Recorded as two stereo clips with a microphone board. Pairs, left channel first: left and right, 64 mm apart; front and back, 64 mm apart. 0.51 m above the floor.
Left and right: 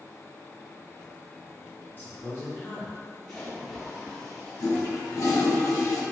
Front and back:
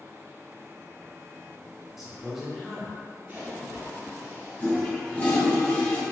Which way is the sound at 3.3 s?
170° left.